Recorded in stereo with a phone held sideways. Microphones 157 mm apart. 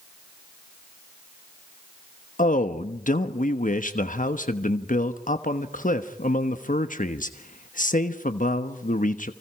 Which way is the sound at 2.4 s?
55° left (ahead or behind).